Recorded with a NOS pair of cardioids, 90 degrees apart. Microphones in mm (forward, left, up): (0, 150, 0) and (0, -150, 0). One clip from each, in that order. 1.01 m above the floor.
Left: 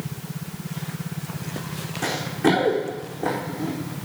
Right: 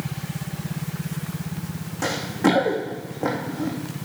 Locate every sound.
2.0 s running footsteps: 45° right, 4 m